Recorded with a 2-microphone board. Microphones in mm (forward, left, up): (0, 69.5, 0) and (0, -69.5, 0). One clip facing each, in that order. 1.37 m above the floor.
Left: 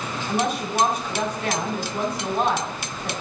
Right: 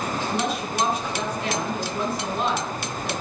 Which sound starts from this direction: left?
A woman speaking, at 0.3 s.